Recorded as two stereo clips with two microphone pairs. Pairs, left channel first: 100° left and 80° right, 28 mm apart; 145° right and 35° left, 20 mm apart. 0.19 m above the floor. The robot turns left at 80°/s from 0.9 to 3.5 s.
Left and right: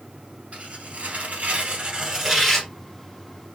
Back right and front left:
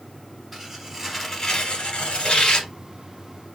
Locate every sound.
0.5 s tearing paper: 45° right, 1.2 m; by 2.7 s 170° left, 1.2 m